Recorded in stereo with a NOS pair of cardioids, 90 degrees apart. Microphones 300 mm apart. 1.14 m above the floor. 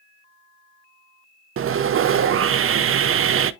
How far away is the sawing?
About 0.7 m.